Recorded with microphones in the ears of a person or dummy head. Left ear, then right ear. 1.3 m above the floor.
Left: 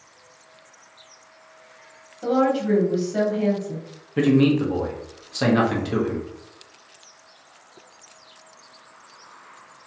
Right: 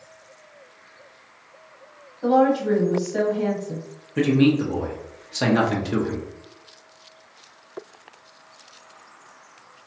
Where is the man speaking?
Centre (ahead or behind), 0.6 m.